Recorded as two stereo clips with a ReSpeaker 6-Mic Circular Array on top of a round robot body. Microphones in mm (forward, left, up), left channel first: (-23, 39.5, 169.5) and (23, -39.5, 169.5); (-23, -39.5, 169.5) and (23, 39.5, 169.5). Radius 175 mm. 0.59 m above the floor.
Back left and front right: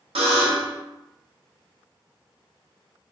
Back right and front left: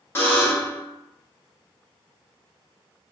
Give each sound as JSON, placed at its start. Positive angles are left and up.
{"t": 0.1, "sound": "a buzzer", "azimuth_deg": -55, "distance_m": 0.9}